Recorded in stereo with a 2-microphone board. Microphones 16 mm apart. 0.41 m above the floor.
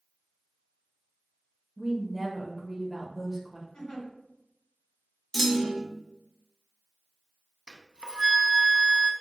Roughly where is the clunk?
Centre.